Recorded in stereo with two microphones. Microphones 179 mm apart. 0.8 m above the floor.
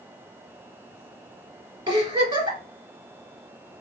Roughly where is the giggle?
Right.